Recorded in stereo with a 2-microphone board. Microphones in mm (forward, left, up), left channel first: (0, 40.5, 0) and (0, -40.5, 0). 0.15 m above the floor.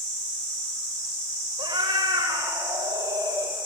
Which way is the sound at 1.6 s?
75° right (ahead or behind).